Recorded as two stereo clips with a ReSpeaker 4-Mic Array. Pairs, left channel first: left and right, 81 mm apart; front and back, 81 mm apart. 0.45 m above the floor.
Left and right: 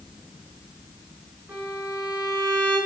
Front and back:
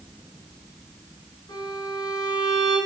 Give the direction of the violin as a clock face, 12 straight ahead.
1 o'clock.